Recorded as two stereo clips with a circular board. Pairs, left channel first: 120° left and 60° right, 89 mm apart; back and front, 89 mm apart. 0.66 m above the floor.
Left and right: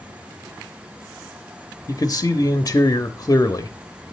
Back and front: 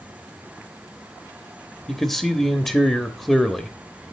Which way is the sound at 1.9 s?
95° left.